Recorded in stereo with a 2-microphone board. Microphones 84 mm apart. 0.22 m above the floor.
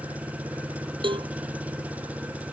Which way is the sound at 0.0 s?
15° right (ahead or behind).